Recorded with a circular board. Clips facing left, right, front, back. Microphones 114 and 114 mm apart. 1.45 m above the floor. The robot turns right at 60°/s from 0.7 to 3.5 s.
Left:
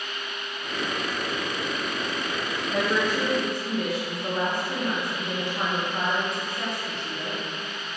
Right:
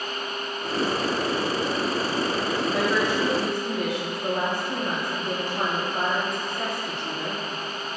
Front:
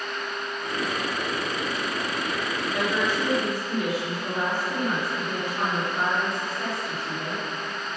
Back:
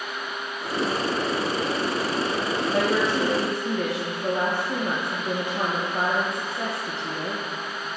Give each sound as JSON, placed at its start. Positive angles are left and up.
{"t": 2.7, "sound": "a woman speaking", "azimuth_deg": 145, "distance_m": 1.9}